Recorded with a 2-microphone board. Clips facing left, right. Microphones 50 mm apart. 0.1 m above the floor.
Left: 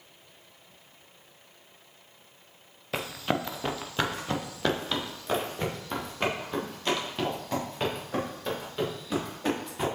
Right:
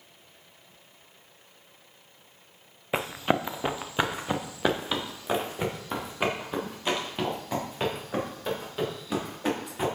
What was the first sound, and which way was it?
Running footsteps, 25° right (ahead or behind).